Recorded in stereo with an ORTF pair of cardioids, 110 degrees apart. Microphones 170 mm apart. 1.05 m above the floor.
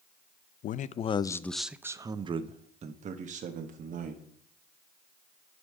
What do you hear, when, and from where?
0.6 s a man speaking: 55° left, 0.6 m; by 4.2 s 50° right, 1.6 m